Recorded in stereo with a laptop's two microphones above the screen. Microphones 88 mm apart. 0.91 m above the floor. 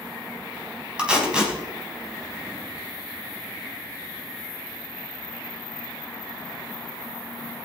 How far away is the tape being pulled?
About 4 m.